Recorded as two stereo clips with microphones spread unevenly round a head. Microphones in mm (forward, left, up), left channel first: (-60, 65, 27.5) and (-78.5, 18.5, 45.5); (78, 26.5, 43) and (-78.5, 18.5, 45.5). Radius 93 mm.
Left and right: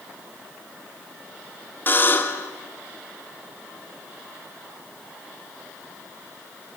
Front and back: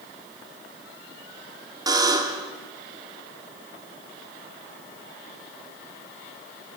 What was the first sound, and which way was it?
A buzzer, 115° left.